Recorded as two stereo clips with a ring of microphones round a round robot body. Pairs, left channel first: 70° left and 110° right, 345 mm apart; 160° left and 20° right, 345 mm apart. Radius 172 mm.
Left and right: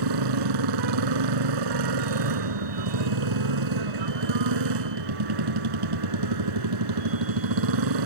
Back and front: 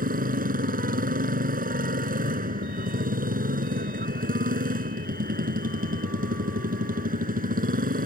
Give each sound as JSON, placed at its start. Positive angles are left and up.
{"t": 0.0, "sound": "a motorcycle", "azimuth_deg": -90}